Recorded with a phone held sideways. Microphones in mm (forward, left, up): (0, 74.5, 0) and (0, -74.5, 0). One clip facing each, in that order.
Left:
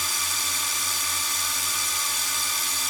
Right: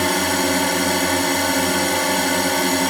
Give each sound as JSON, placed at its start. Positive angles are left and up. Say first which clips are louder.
{"t": 0.0, "sound": "a drone", "louder": "right 18 dB", "side_deg": -70}